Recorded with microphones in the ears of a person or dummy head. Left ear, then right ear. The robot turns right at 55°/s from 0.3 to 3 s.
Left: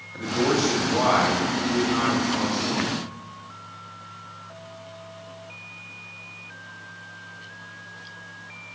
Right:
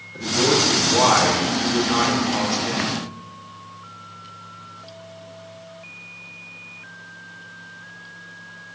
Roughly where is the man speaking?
Behind left.